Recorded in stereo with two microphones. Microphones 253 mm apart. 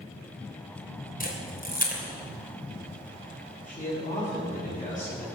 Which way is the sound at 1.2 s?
35° left (ahead or behind).